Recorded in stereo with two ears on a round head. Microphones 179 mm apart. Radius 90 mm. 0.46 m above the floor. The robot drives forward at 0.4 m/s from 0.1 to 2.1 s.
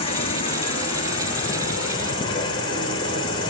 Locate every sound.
0.0 s an insect: 30° left (ahead or behind), 3.5 m; by 3.5 s 25° left (ahead or behind), 4 m